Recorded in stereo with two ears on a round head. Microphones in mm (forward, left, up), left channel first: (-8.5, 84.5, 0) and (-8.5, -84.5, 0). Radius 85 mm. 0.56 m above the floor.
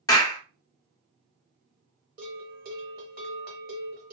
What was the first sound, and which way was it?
A clap, 20° left (ahead or behind).